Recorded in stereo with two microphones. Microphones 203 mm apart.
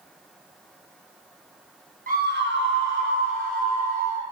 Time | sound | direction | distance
2.1 | a scream | 40° right (ahead or behind) | 1.1 m